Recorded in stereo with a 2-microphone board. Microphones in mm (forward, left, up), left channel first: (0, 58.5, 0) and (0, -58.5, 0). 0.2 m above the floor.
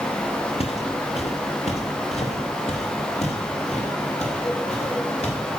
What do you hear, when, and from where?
0.6 s footsteps: 60° left (ahead or behind), 1.5 m; by 5.4 s 70° left (ahead or behind), 4.5 m